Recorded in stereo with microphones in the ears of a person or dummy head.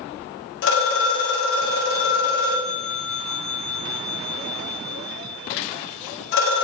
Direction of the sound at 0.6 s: 65° left (ahead or behind).